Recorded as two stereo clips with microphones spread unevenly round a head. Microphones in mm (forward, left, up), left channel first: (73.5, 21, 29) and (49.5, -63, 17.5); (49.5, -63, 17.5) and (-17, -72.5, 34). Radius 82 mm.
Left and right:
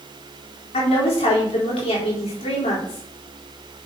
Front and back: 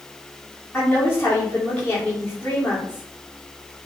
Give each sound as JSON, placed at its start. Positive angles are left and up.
{"t": 0.7, "sound": "a woman speaking", "azimuth_deg": 85, "distance_m": 4.0}